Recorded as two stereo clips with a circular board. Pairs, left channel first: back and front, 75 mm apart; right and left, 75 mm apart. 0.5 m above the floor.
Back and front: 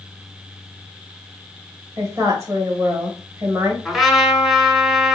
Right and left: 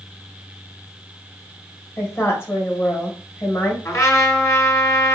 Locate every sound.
2.0 s a woman speaking: 35° right, 2 m
3.9 s a trumpet: 85° right, 1.5 m